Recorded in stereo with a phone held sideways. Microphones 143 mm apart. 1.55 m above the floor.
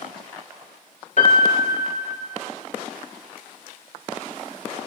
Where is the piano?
60° left (ahead or behind), 1.1 m.